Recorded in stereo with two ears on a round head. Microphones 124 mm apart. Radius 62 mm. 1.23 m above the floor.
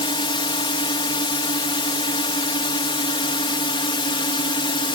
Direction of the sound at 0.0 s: 40° left (ahead or behind).